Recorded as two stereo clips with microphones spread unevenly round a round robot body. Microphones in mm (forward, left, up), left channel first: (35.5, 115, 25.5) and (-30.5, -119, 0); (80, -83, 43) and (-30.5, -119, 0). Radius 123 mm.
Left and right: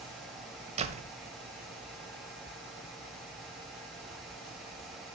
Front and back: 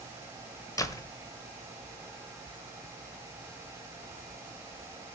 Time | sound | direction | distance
0.8 | a door slam | 55° right | 1.3 m